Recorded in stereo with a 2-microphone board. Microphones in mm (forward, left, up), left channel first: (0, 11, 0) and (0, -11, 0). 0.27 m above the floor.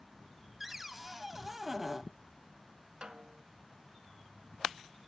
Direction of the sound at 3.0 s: 45° right (ahead or behind).